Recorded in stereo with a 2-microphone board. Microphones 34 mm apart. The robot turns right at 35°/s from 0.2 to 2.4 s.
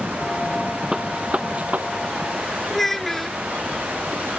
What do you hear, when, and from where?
0.9 s a gunshot: 20° right (ahead or behind); by 1.9 s 50° right (ahead or behind)
2.7 s a child speaking: 10° left (ahead or behind)